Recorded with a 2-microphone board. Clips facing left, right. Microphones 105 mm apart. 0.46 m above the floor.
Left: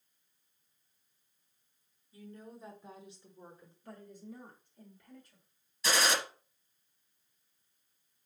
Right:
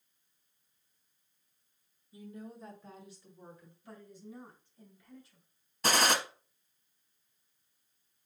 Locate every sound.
2.1 s a woman speaking: 20° right (ahead or behind), 0.8 m; by 3.7 s 35° left (ahead or behind), 1.5 m
3.8 s a woman speaking: 50° left (ahead or behind), 1.9 m
5.8 s a gunshot: 55° right (ahead or behind), 0.8 m